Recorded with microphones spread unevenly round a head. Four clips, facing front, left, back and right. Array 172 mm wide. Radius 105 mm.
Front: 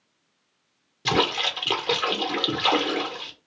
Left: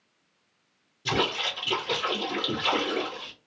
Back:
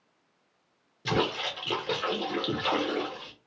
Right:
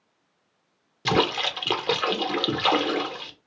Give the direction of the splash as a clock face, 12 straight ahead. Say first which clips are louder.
Right 5 dB, front 4 dB; 3 o'clock.